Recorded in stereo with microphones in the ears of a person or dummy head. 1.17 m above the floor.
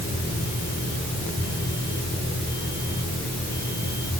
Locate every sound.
Only background noise.